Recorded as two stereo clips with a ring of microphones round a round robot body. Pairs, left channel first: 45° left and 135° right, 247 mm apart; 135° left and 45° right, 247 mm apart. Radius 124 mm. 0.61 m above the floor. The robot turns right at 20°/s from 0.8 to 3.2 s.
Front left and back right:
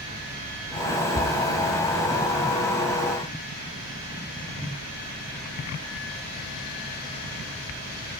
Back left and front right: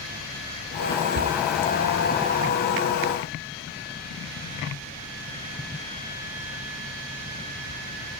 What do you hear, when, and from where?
1.1 s a cupboard door: 30° right, 0.7 m; by 1.4 s 25° right, 0.7 m